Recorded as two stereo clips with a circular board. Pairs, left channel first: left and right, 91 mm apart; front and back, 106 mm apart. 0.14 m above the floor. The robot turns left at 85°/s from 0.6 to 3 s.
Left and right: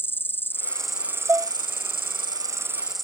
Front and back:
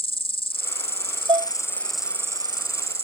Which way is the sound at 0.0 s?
25° left.